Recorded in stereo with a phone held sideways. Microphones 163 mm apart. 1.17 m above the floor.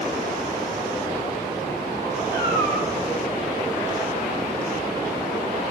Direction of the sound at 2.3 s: 25° left (ahead or behind).